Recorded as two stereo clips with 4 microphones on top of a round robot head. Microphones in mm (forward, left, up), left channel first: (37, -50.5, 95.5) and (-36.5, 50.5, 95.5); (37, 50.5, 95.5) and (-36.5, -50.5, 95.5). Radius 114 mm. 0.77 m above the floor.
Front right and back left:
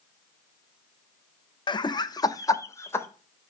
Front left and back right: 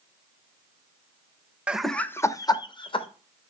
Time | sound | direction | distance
1.7 | laughter | 50° right | 0.9 m